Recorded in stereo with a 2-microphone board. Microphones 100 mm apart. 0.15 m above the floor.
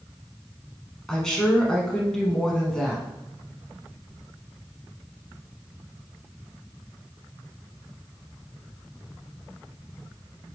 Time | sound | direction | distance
1.1 | a woman speaking | 5° left (ahead or behind) | 1.0 m